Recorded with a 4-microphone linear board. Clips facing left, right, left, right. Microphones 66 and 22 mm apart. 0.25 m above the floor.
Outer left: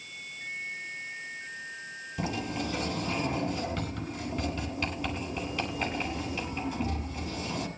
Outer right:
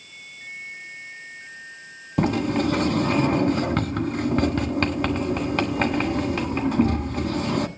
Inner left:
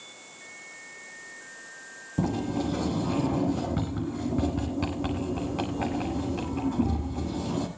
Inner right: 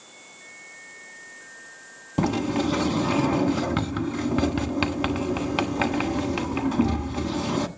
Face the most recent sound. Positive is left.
turn(degrees=-60)  # may be behind; listen again after turning